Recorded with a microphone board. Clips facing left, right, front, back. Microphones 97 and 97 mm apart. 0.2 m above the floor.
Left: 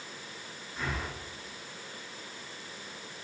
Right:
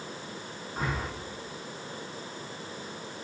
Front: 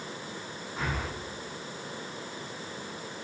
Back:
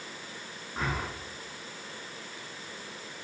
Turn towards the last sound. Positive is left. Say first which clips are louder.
# right 3 dB, back 1 dB
turn(degrees=-135)